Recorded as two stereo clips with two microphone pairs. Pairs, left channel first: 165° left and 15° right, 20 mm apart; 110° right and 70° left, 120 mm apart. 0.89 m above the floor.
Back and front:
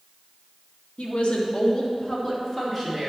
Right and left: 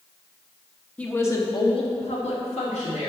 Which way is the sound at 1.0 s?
170° left.